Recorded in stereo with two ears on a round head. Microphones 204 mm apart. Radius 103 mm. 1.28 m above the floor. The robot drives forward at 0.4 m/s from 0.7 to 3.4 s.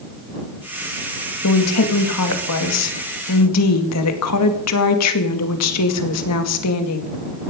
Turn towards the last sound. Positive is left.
turn(degrees=80)